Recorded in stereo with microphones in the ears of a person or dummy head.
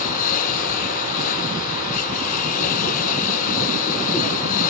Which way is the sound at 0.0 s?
45° left (ahead or behind).